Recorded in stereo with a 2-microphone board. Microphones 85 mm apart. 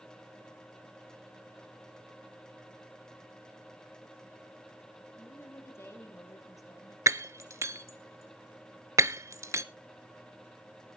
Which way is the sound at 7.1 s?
35° right (ahead or behind).